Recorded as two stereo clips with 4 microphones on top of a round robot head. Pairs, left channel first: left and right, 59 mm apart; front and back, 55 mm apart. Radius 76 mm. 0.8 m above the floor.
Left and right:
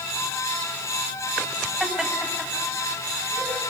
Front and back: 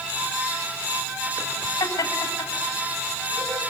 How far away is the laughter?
About 7 m.